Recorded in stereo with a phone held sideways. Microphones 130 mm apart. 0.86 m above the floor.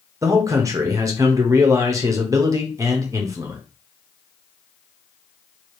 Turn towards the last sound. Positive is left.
turn(degrees=-25)  # may be behind; listen again after turning